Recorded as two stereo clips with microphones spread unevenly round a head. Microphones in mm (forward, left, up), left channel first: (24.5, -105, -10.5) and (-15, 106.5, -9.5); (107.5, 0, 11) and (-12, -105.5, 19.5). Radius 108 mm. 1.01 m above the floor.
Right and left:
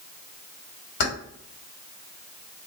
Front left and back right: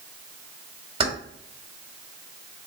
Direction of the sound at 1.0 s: 80° right.